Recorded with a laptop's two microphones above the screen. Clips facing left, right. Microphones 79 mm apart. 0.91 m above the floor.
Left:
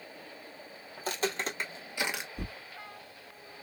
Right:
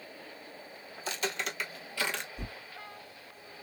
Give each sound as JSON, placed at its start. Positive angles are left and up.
{"t": 1.0, "sound": "footsteps", "side_deg": 45, "distance_m": 1.3}
{"t": 2.4, "sound": "tearing paper", "side_deg": 45, "distance_m": 2.0}